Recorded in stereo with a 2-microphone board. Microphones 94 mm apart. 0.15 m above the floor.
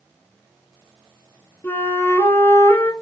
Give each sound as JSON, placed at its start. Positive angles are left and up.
{"t": 1.6, "sound": "a flute", "side_deg": 25, "distance_m": 1.0}